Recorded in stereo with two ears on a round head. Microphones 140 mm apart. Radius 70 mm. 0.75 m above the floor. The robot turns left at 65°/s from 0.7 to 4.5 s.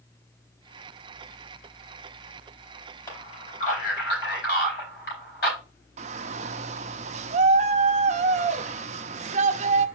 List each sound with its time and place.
3.1 s a man speaking: 20° left (ahead or behind), 4.5 m; by 5.6 s 65° left (ahead or behind), 4.5 m
6.0 s a shout: 45° right (ahead or behind), 0.7 m